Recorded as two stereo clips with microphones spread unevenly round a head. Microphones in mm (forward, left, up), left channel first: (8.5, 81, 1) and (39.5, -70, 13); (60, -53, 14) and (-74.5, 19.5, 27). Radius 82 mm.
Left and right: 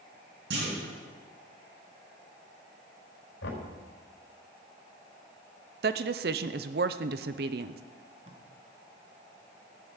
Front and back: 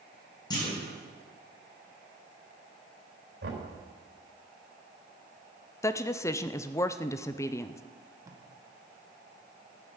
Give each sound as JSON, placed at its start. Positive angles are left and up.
{"t": 0.5, "sound": "a clunk", "azimuth_deg": -95, "distance_m": 7.5}
{"t": 3.4, "sound": "knocking", "azimuth_deg": 125, "distance_m": 4.5}
{"t": 5.8, "sound": "a woman speaking", "azimuth_deg": -100, "distance_m": 0.7}
{"t": 8.2, "sound": "tape being pulled", "azimuth_deg": -140, "distance_m": 1.8}